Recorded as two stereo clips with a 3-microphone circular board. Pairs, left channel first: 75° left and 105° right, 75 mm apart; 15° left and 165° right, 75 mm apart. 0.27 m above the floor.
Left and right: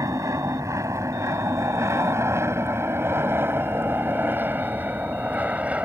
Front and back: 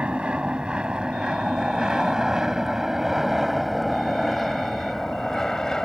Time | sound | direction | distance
0.0 | an aircraft | 95° right | ?